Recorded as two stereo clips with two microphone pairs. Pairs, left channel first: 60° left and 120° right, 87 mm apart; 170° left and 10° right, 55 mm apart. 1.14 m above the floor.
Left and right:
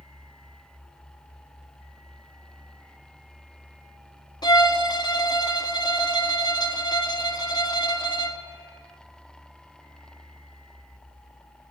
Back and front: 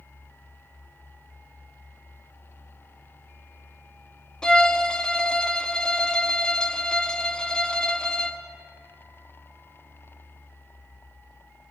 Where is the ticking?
I don't hear ticking.